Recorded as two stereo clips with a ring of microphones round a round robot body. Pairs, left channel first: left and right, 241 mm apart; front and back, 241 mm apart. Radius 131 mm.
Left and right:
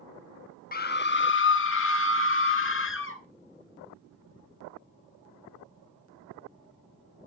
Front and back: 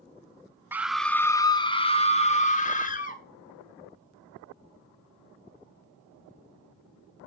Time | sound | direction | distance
0.7 | a scream | 105° left | 0.7 m